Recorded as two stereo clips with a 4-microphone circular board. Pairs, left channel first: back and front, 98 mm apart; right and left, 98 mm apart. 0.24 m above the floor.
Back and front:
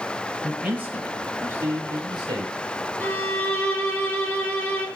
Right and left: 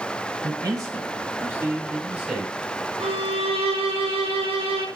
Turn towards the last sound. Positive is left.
turn(degrees=105)